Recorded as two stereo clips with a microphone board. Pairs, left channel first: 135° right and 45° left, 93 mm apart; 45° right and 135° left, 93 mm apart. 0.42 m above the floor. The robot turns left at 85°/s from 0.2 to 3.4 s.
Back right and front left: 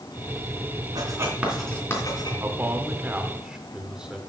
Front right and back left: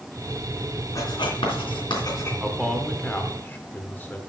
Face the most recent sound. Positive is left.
turn(degrees=-20)